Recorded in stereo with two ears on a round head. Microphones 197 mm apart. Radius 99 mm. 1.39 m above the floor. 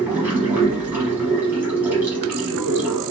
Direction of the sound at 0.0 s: 10° right (ahead or behind).